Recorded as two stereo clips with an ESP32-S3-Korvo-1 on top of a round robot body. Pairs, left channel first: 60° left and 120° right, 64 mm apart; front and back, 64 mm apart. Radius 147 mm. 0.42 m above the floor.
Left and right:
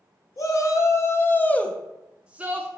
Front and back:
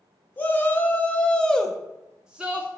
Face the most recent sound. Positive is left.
turn(degrees=-130)